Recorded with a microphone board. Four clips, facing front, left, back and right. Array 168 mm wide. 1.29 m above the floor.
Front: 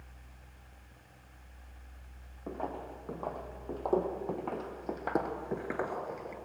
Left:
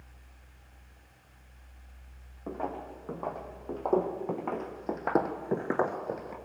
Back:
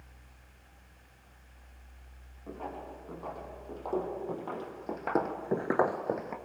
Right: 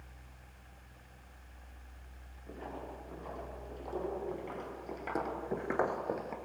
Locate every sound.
2.5 s footsteps: 60° left, 4.5 m; by 6.4 s 175° right, 1.8 m